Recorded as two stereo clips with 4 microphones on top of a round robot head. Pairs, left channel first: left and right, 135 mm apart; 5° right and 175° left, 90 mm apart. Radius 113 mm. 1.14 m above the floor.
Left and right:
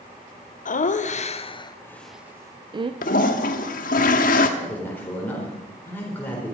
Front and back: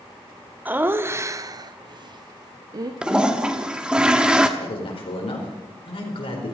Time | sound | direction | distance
0.7 | laughter | 105° left | 0.9 m
3.0 | a toilet flushing | 100° left | 0.9 m
4.6 | a man speaking | 10° left | 4 m